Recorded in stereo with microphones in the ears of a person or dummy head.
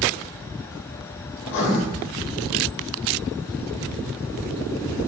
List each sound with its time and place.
1.4 s writing: 55° left (ahead or behind), 0.6 m